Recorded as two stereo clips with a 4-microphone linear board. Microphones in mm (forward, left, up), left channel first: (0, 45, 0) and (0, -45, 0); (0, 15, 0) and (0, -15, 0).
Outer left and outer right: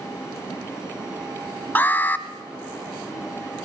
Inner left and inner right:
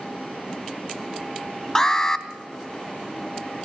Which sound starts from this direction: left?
An alarm, at 1.8 s.